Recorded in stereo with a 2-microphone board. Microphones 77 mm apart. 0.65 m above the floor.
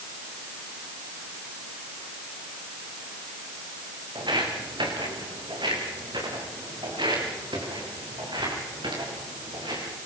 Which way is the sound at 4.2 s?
85° right.